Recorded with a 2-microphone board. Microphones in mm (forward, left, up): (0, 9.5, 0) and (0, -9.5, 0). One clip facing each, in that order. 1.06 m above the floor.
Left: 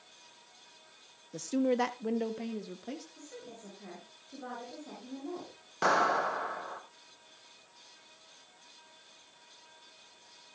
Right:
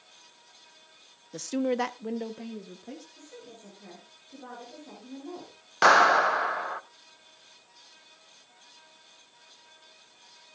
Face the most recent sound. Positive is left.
turn(degrees=-45)  # may be behind; listen again after turning